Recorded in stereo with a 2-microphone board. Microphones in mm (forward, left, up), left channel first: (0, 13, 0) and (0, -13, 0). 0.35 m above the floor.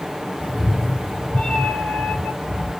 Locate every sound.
0.4 s a cat meowing: 45° left (ahead or behind), 1.0 m